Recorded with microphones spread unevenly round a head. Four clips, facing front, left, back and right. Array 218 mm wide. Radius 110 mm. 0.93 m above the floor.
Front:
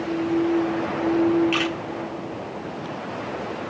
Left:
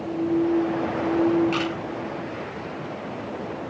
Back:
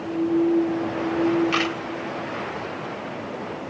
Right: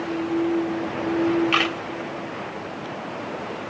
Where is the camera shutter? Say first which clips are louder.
Right 2 dB, even; 110° right, 2.5 m.